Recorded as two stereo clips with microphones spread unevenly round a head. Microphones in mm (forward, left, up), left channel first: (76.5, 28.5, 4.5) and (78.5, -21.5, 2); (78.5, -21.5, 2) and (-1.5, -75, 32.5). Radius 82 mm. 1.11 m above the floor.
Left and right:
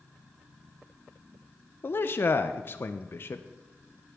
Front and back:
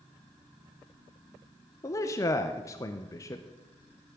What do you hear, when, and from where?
1.8 s a man speaking: 60° left, 0.6 m